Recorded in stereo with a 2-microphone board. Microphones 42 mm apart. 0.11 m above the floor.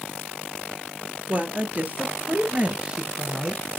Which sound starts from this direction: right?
A woman speaking, at 1.3 s.